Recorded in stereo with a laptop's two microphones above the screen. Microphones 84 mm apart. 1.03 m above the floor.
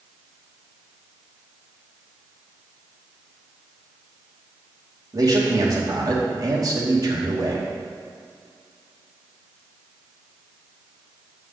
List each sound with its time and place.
5.1 s a man speaking: 45° right (ahead or behind), 2.5 m